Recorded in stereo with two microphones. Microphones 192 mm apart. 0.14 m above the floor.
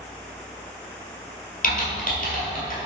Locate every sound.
1.6 s typing on a keyboard: 45° left (ahead or behind), 1.5 m